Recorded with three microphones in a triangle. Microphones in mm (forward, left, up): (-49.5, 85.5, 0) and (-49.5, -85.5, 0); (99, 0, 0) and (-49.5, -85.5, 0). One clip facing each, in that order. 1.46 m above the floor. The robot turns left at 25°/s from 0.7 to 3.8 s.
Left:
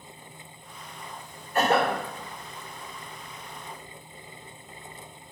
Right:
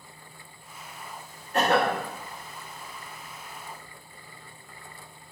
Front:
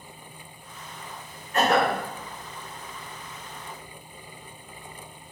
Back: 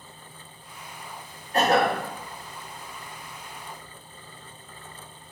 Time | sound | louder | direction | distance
1.5 | a cough | even, back 1 dB | 95° right | 1.7 m